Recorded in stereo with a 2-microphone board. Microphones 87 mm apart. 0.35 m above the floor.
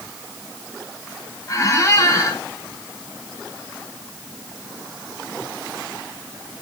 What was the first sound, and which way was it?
A squeak, 40° left (ahead or behind).